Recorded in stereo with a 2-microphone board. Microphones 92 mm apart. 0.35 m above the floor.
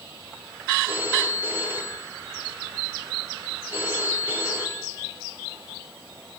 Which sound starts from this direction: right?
A phone ringing, at 0.9 s.